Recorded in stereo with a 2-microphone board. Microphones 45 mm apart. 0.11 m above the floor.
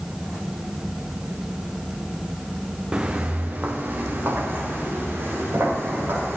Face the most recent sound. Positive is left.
turn(degrees=-65)  # may be behind; listen again after turning